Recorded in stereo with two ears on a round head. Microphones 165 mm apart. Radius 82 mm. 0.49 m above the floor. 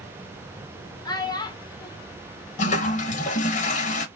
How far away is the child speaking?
About 0.8 m.